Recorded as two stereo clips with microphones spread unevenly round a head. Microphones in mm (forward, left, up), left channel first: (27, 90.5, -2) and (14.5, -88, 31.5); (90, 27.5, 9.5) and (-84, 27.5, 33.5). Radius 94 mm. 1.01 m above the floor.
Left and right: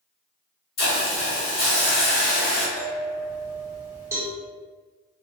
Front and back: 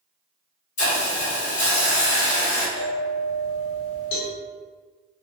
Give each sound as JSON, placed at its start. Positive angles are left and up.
{"t": 0.8, "sound": "a hiss", "azimuth_deg": 45, "distance_m": 1.2}
{"t": 2.8, "sound": "a bell", "azimuth_deg": 20, "distance_m": 1.3}
{"t": 4.1, "sound": "a cowbell", "azimuth_deg": -25, "distance_m": 0.7}